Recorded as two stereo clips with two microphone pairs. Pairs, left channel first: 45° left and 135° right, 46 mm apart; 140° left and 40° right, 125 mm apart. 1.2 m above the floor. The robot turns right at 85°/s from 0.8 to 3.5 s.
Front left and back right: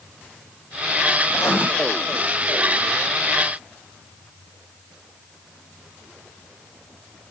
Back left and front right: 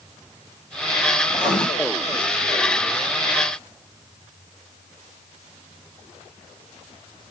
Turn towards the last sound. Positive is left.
turn(degrees=-120)